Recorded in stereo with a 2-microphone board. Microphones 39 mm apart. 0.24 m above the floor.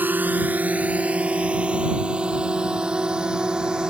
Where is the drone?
55° right (ahead or behind); by 3.9 s 20° right (ahead or behind).